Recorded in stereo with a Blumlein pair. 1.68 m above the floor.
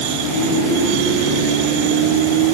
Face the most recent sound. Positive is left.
No sound to turn to.